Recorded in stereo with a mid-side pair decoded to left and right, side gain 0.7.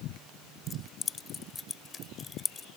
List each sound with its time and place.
0.7 s keys jangling: 25° left